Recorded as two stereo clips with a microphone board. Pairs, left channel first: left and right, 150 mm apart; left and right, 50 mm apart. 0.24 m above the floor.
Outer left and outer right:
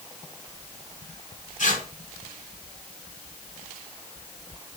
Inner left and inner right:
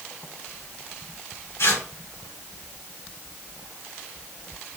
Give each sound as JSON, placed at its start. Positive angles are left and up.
{"t": 1.6, "sound": "tearing paper", "side_deg": 60, "distance_m": 3.5}